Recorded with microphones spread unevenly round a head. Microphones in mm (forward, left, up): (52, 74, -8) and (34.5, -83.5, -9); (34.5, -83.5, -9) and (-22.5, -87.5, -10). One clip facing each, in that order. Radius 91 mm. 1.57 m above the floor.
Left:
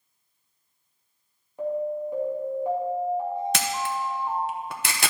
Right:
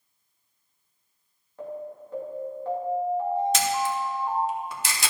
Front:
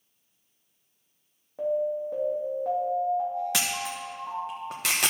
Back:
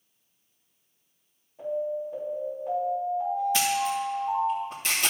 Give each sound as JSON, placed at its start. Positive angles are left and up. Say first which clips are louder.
{"t": 1.6, "sound": "an alarm", "louder": "left 9 dB, front 3 dB", "azimuth_deg": 10, "distance_m": 3.0}
{"t": 3.5, "sound": "a camera shutter", "louder": "right 3 dB, back 6 dB", "azimuth_deg": 50, "distance_m": 1.0}